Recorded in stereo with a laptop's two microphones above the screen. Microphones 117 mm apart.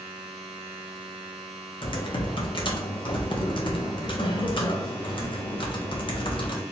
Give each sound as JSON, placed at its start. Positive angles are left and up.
{"t": 0.0, "sound": "a machine running", "side_deg": -55, "distance_m": 0.8}
{"t": 1.8, "sound": "typing on a keyboard", "side_deg": 45, "distance_m": 0.6}